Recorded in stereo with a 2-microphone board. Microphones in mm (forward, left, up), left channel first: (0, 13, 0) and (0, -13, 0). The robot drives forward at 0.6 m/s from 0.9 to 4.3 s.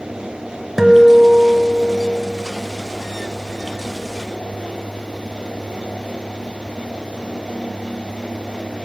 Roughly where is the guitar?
Centre.